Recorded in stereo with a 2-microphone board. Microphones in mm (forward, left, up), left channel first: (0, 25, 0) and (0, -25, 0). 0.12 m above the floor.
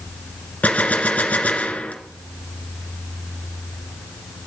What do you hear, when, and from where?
0.6 s a gunshot: 25° left (ahead or behind), 1.8 m